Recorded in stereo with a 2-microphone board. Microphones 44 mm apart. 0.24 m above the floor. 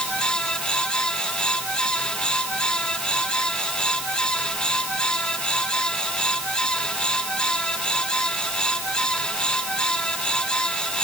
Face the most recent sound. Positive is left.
No sound to turn to.